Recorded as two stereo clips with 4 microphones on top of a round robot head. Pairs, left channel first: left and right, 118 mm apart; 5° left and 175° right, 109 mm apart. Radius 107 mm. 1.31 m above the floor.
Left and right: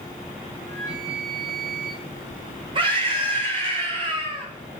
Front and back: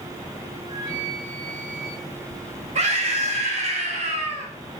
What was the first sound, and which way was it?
A flute, 120° right.